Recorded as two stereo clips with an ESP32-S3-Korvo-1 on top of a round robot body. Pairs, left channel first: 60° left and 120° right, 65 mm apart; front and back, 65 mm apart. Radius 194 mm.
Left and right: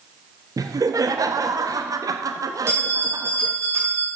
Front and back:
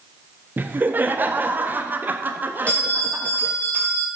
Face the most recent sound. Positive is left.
turn(degrees=-70)